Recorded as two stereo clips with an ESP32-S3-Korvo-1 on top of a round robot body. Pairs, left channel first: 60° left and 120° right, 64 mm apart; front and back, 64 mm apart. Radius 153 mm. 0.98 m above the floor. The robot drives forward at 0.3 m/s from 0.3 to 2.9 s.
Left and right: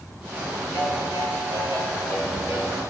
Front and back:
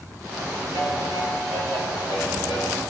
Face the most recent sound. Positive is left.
turn(degrees=30)